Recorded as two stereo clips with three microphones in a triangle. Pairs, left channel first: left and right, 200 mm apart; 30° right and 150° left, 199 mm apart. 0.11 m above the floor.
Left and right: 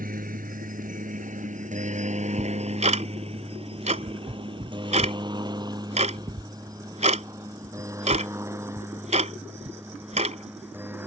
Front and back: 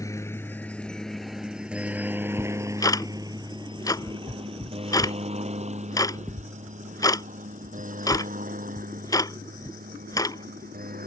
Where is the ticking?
90° right.